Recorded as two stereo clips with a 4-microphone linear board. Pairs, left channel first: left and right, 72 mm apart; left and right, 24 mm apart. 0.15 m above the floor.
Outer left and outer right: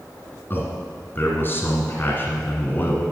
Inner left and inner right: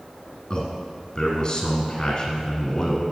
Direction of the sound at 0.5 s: 30° left (ahead or behind).